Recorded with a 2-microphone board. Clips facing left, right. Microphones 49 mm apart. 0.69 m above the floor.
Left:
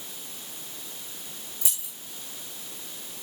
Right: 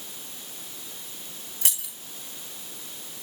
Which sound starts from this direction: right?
Keys jangling, at 1.6 s.